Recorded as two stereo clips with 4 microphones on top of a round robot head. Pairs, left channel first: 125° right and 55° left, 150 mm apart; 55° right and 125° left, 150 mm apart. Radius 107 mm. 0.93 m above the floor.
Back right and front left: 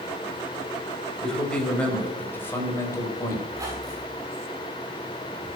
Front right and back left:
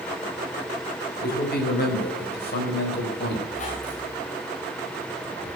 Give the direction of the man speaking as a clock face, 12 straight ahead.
1 o'clock.